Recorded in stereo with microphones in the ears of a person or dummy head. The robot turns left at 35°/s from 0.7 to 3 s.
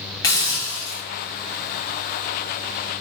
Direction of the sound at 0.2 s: 20° left (ahead or behind).